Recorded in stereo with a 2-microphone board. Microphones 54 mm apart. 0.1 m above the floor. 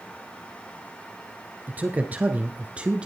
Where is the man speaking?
35° right (ahead or behind), 1.9 m; by 3.1 s 20° right (ahead or behind), 1.6 m.